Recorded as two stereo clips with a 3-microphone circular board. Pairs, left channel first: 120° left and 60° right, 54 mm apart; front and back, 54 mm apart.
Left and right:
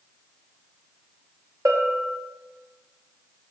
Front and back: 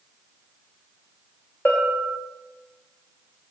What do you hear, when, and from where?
1.6 s a bell: 55° right, 5 m